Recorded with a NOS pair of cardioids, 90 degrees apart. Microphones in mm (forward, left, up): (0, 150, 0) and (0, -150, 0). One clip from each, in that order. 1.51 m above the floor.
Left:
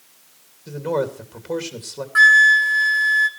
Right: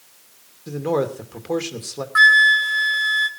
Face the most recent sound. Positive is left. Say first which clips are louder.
# left 1 dB
turn(degrees=5)